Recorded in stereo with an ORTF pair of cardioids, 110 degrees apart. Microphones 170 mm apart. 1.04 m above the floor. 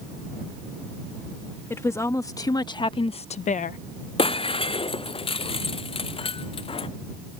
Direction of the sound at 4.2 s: 35° left.